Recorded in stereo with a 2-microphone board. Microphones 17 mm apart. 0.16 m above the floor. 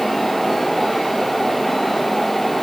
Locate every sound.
Only background noise.